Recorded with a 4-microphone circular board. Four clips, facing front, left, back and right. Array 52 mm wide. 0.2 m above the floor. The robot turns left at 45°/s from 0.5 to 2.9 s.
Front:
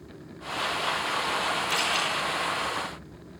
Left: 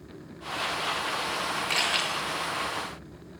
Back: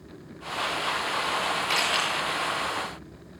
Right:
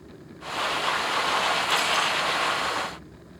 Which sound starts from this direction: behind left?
A camera shutter, at 1.7 s.